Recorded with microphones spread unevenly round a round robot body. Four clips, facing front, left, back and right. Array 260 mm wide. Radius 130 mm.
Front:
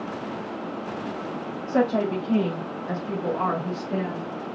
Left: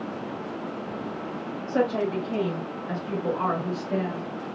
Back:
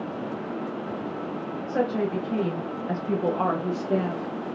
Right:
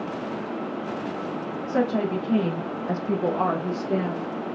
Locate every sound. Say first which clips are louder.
1.7 s a woman speaking: right 1 dB, front 3 dB; 20° right, 1.2 m; by 4.5 s 150° right, 1.7 m